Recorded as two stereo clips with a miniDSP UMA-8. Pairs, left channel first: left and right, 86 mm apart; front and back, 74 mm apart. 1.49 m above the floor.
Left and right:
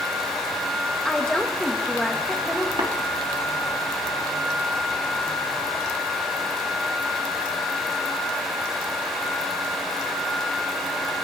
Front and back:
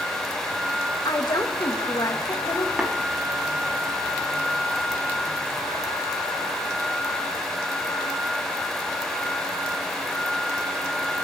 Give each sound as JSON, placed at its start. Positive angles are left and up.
{"t": 1.1, "sound": "a woman speaking", "azimuth_deg": 5, "distance_m": 1.5}
{"t": 2.8, "sound": "tapping", "azimuth_deg": -100, "distance_m": 3.0}